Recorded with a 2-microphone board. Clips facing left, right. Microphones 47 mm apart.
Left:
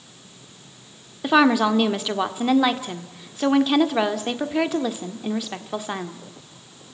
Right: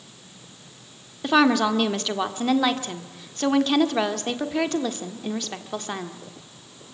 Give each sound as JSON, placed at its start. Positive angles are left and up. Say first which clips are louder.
{"t": 1.2, "sound": "a woman speaking", "louder": "left 2 dB", "side_deg": 10, "distance_m": 1.4}